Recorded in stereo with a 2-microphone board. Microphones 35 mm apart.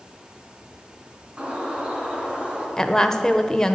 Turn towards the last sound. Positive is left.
turn(degrees=15)  # may be behind; listen again after turning